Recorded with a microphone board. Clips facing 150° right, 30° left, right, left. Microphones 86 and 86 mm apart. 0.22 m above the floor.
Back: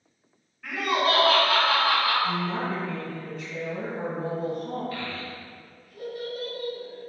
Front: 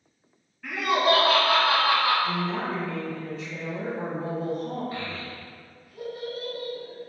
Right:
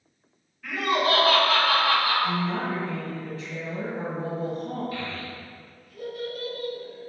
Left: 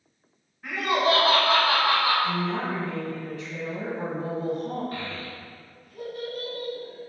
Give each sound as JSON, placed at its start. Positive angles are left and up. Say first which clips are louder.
{"t": 0.6, "sound": "laughter", "louder": "front 2 dB, left 1 dB", "azimuth_deg": 120, "distance_m": 1.6}
{"t": 2.2, "sound": "a woman speaking", "louder": "even, even", "azimuth_deg": -135, "distance_m": 1.6}
{"t": 4.9, "sound": "a child speaking", "louder": "even, right 1 dB", "azimuth_deg": 85, "distance_m": 0.7}